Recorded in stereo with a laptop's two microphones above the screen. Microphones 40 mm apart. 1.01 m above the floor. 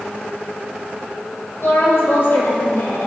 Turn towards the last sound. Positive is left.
turn(degrees=75)  # may be behind; listen again after turning